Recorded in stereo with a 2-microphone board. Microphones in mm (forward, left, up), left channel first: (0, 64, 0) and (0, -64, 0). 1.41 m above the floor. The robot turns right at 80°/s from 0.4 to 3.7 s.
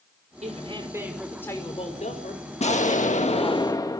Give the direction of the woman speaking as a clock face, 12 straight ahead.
2 o'clock.